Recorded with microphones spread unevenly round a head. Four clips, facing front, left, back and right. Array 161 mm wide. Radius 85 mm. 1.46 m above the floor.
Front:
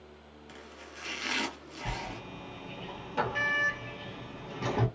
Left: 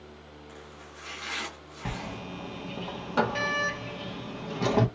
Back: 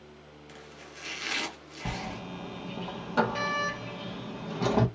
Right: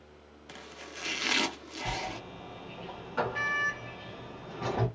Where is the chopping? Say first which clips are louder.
Right 4 dB, front 1 dB; 80° right, 0.7 m.